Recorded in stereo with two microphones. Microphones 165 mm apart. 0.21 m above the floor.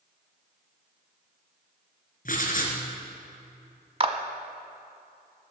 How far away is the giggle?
I don't hear a giggle.